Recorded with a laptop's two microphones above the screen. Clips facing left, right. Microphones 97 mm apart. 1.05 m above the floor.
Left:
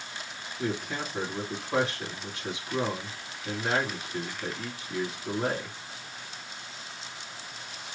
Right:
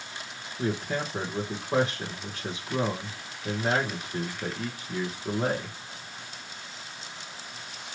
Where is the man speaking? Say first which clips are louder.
Right 3 dB; 35° right (ahead or behind), 1.1 m.